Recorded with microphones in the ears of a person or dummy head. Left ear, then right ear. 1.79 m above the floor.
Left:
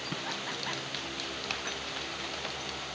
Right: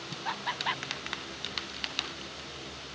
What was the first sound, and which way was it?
Laughter, 20° right (ahead or behind).